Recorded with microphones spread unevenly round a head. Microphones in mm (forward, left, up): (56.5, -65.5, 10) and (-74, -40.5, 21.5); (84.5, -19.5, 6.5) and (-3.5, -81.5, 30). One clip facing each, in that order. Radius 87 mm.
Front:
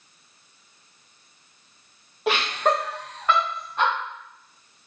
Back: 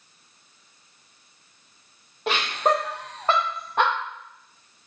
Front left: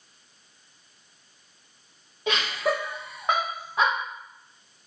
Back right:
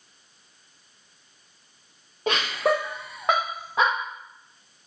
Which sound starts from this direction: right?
Laughter, at 2.3 s.